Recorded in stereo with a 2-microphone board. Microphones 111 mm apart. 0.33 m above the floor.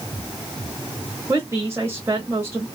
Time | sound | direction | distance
1.3 | a woman speaking | 25° right (ahead or behind) | 1.1 m